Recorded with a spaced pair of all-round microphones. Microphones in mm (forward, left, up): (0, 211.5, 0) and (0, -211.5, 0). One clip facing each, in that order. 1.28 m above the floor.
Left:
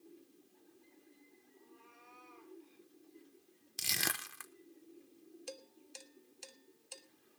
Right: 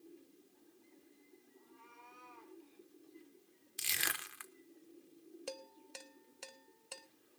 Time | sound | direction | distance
1.6 | a cat meowing | 20° right (ahead or behind) | 3.5 m
3.8 | crushing | 60° left (ahead or behind) | 0.9 m
5.5 | dishes clattering | 75° right (ahead or behind) | 1.2 m